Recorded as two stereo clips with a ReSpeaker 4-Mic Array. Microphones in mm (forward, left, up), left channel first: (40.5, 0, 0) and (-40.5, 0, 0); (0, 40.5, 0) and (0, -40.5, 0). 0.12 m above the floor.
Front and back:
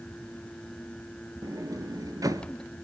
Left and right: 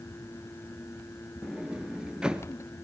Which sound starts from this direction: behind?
A sliding door, at 1.4 s.